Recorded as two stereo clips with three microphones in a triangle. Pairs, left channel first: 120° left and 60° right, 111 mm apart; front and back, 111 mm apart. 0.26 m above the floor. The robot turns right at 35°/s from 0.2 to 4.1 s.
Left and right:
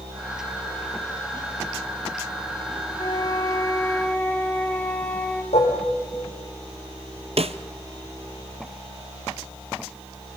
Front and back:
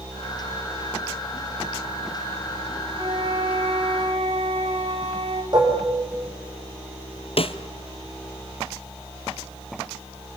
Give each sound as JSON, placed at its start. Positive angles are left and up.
{"t": 3.0, "sound": "a flute", "azimuth_deg": 155, "distance_m": 3.0}
{"t": 5.5, "sound": "dishes clattering", "azimuth_deg": 130, "distance_m": 8.0}
{"t": 7.4, "sound": "a snare drum", "azimuth_deg": -35, "distance_m": 1.0}